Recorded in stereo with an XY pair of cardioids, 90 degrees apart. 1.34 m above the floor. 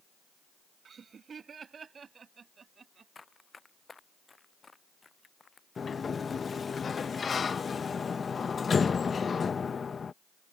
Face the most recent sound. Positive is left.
turn(degrees=40)